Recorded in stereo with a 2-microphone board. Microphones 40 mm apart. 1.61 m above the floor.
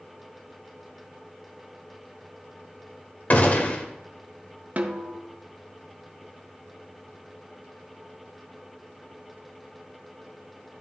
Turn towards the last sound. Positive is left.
turn(degrees=-40)  # may be behind; listen again after turning